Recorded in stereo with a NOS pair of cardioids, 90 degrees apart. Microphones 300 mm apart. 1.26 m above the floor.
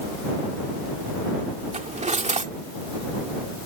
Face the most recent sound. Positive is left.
turn(degrees=-25)